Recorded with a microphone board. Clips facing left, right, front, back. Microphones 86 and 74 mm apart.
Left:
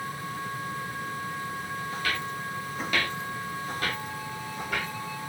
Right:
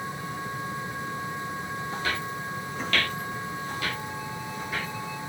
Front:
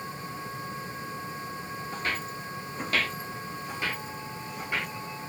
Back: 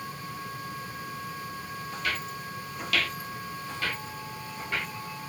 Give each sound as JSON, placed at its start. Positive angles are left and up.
{"t": 1.9, "sound": "footsteps", "azimuth_deg": -45, "distance_m": 0.8}